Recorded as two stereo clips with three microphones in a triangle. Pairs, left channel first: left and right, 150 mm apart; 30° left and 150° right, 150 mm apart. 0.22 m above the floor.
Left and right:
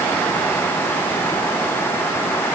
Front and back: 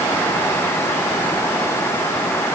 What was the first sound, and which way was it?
Only background noise.